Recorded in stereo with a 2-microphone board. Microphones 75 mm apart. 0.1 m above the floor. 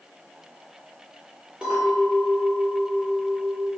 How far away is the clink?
About 1.8 m.